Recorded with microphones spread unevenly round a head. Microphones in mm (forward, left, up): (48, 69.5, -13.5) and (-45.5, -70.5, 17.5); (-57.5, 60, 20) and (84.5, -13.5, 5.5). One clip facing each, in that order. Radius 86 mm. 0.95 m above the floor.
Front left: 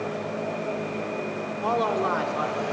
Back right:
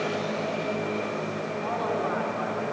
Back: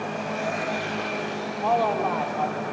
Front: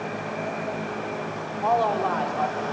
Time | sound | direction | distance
1.6 | a man speaking | 65° left | 2.5 m